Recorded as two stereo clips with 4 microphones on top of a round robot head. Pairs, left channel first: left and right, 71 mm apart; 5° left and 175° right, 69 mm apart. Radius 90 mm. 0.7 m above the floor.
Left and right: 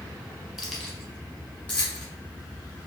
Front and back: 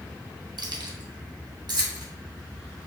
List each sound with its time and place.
0.6 s keys jangling: straight behind, 1.0 m; by 2.0 s 165° left, 1.7 m